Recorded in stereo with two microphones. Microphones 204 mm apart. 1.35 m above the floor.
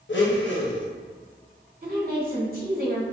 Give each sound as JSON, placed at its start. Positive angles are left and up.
{"t": 0.1, "sound": "a blender", "side_deg": 65, "distance_m": 0.8}
{"t": 1.8, "sound": "a woman speaking", "side_deg": -50, "distance_m": 1.6}